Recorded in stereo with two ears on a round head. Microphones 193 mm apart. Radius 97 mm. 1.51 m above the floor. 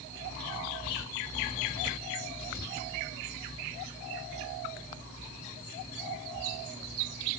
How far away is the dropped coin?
I don't hear a dropped coin.